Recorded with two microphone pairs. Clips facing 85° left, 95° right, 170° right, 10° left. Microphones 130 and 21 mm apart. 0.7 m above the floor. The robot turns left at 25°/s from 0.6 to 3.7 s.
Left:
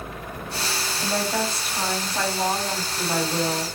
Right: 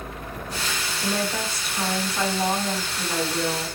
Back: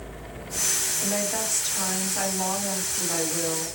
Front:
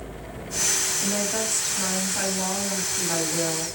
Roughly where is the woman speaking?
Behind left.